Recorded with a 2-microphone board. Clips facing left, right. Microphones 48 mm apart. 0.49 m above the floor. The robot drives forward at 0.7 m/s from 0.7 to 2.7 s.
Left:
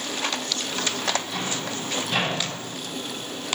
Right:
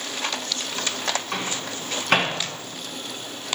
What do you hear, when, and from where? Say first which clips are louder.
1.3 s a microwave: even; 75° right (ahead or behind), 4.5 m; by 2.3 s 80° right, 4.5 m